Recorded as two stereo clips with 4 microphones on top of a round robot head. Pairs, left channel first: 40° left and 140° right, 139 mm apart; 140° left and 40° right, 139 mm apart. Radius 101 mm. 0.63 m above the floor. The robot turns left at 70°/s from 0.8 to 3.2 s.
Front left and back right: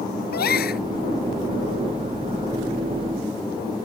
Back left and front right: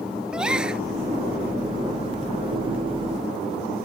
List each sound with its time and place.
0.3 s a gasp: 45° left